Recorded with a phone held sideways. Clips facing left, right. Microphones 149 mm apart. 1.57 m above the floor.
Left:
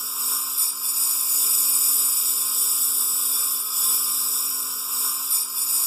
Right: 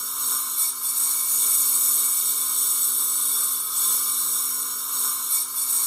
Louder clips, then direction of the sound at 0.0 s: Even; 5° left (ahead or behind).